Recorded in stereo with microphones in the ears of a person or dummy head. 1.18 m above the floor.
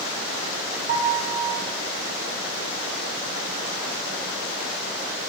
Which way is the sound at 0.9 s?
40° right (ahead or behind).